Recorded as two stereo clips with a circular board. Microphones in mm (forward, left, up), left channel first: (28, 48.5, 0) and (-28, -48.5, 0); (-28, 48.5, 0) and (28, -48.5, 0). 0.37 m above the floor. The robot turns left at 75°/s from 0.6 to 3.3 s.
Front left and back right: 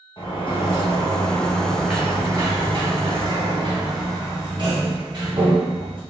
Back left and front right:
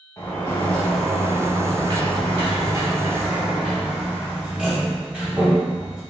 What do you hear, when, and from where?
0.2 s a sliding door: 65° left, 1.9 m; by 6.0 s 135° right, 1.9 m